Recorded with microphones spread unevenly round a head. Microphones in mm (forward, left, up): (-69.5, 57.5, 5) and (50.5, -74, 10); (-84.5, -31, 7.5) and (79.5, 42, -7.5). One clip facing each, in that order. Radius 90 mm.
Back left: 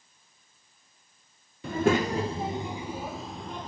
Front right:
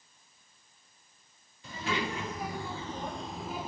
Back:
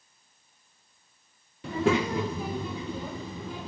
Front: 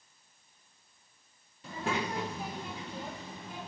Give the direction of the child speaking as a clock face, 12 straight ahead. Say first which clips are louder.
Back left 10 dB, back 9 dB; 6 o'clock.